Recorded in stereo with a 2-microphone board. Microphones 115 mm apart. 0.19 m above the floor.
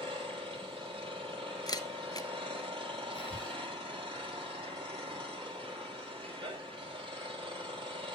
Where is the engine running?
45° right (ahead or behind), 3 m.